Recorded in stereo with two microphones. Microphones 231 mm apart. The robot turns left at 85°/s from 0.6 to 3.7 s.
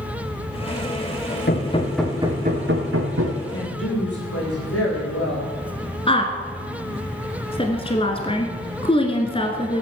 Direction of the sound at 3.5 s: 80° left.